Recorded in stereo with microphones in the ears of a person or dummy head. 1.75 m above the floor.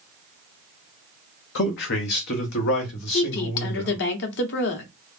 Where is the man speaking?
50° left (ahead or behind), 0.8 m; by 4.0 s 55° left (ahead or behind), 2.5 m.